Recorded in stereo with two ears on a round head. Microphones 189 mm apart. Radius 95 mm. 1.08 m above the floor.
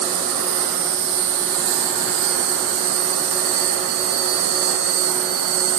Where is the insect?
75° right (ahead or behind), 1.3 m.